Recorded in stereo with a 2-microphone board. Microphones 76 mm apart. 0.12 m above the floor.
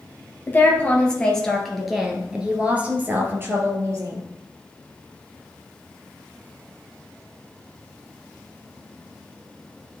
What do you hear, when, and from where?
0.5 s a woman speaking: 25° left (ahead or behind), 1.9 m; by 4.2 s 45° right (ahead or behind), 2 m